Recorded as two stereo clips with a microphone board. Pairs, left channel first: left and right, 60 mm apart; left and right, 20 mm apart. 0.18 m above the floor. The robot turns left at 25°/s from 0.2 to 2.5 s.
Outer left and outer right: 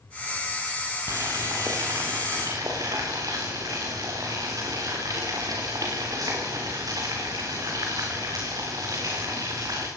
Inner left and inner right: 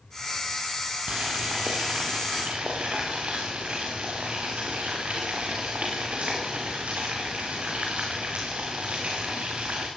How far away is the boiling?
About 8 m.